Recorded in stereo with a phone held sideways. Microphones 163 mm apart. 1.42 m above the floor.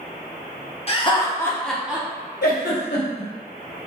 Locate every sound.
0.9 s laughter: 40° left (ahead or behind), 0.7 m; by 2.1 s 15° right (ahead or behind), 0.7 m
2.4 s a giggle: 85° left, 1.0 m